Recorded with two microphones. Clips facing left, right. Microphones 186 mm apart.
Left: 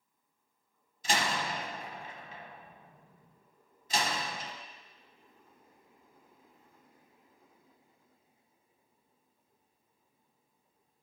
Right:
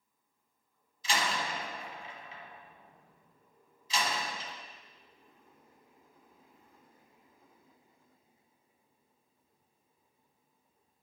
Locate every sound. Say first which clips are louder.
1.0 s a door slam: left 1 dB; 50° left (ahead or behind), 1.1 m